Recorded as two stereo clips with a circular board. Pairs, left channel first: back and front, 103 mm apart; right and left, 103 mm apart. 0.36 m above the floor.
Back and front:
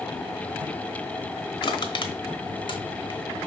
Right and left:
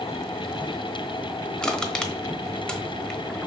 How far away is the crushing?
About 1.1 m.